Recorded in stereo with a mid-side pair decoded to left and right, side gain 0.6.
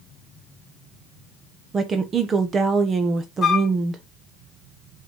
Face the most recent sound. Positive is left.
turn(degrees=40)